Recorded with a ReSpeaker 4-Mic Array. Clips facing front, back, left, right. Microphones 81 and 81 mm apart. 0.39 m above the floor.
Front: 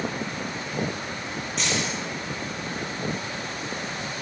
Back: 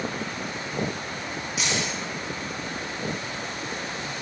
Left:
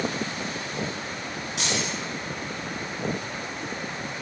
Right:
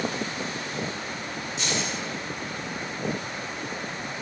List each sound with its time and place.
1.6 s keys jangling: 95° left, 3 m